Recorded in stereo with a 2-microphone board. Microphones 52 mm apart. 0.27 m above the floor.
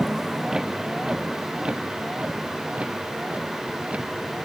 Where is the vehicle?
10° right (ahead or behind); by 4.5 s 25° right (ahead or behind).